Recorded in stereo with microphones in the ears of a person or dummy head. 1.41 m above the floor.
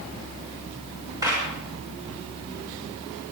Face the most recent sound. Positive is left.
turn(degrees=-20)  # may be behind; listen again after turning